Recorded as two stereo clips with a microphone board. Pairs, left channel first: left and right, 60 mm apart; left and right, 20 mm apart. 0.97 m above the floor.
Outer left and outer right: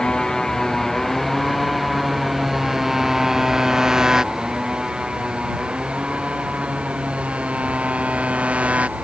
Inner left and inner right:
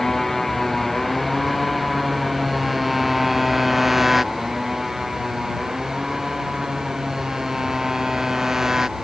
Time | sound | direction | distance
0.0 | a motorcycle | 10° left (ahead or behind) | ?